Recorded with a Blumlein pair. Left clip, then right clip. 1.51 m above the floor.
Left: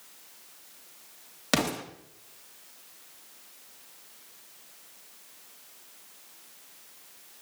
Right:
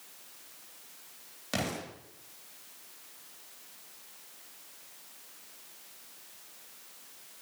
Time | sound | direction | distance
1.5 | an explosion | 60° left | 2.5 m